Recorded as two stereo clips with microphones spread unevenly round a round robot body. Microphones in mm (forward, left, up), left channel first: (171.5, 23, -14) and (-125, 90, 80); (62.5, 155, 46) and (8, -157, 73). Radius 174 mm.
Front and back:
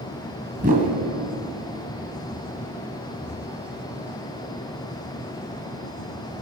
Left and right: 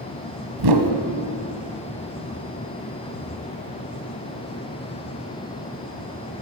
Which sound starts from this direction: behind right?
A whoosh, at 0.6 s.